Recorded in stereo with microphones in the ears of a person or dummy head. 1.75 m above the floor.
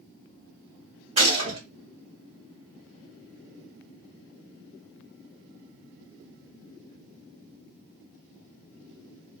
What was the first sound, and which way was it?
A gunshot, 35° right (ahead or behind).